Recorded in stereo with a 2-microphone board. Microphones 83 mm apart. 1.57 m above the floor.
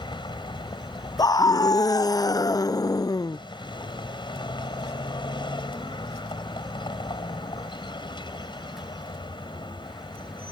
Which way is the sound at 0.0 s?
65° left (ahead or behind).